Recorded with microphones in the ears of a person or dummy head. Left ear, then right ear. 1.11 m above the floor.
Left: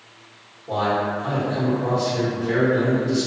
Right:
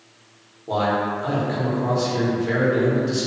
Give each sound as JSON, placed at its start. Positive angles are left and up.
{"t": 0.7, "sound": "a man speaking", "side_deg": -70, "distance_m": 1.0}